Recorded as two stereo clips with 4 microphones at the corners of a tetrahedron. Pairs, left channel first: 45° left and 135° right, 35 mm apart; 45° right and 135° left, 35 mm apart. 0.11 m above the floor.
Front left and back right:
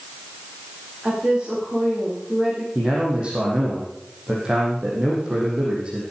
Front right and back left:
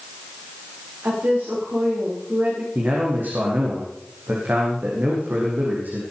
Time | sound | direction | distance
1.0 | a woman speaking | 150° left | 7 m
2.8 | a man speaking | 165° left | 5 m